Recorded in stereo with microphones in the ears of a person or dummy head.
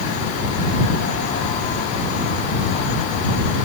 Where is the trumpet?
I don't hear a trumpet.